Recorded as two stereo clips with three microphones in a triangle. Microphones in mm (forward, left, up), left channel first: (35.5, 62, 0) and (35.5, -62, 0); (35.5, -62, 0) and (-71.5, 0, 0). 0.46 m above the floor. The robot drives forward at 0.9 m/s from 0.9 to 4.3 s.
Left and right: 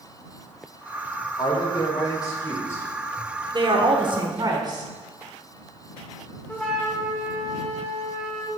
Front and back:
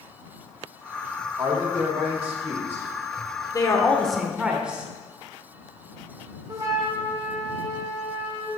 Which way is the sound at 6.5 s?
160° left.